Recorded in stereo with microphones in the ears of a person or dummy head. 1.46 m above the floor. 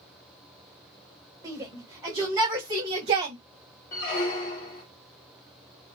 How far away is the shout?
About 2 m.